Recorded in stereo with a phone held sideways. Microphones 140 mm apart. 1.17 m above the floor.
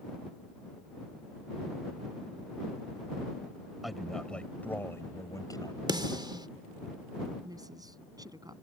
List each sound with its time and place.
3.8 s a man speaking: centre (ahead or behind); by 5.8 s 30° left (ahead or behind)
5.9 s a snare drum: 30° right (ahead or behind)
7.4 s a woman speaking: 25° right (ahead or behind)